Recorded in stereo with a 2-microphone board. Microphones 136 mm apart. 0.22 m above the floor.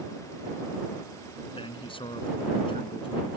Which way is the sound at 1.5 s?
40° left (ahead or behind).